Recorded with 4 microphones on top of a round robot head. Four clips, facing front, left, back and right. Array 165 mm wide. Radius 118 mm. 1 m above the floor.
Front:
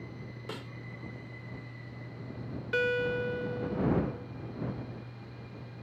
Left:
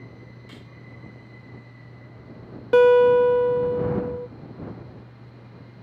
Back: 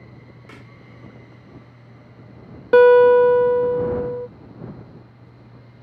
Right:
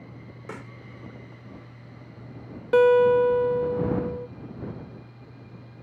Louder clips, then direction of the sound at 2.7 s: Left 3 dB, back 20 dB; 170° left.